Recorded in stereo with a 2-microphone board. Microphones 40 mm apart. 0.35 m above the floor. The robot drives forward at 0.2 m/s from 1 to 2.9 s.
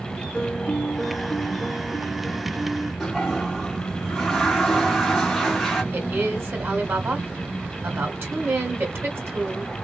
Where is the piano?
25° left (ahead or behind), 2.5 m; by 2.9 s 20° left (ahead or behind), 2.5 m.